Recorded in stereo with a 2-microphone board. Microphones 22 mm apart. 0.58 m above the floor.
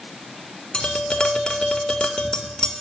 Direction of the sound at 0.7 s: 50° left (ahead or behind).